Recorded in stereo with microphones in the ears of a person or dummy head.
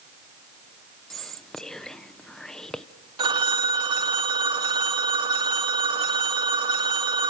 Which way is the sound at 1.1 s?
10° left (ahead or behind).